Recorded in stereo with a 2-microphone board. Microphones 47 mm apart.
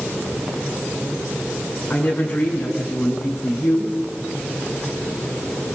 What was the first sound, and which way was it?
A woman speaking, 30° left (ahead or behind).